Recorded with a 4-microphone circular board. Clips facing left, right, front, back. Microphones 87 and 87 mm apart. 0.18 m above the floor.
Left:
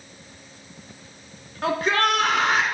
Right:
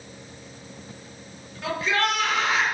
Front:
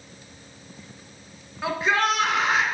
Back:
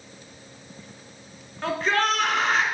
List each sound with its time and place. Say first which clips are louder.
1.6 s a shout: left 3 dB, front 1 dB; 80° left, 2.5 m